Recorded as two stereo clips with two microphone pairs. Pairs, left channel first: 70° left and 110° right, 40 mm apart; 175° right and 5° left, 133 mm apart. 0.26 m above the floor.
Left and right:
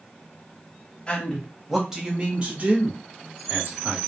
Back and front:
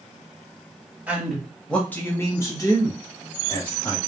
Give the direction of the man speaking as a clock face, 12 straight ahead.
10 o'clock.